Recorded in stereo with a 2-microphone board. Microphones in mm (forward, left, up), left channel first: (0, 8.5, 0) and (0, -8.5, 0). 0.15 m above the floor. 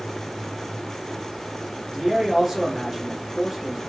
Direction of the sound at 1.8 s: 15° right (ahead or behind).